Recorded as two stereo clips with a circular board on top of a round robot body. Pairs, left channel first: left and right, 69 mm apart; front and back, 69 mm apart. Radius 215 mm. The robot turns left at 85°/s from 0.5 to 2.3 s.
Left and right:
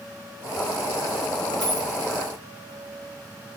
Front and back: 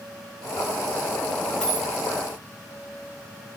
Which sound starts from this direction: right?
A dropped coin, at 1.6 s.